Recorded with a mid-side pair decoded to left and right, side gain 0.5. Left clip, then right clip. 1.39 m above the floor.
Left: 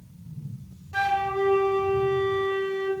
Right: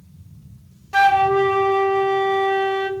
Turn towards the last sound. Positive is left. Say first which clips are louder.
# right 10 dB
turn(degrees=-60)